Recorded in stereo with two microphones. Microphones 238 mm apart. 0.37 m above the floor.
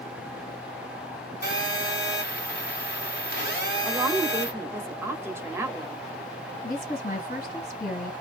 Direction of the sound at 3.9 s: 10° right (ahead or behind).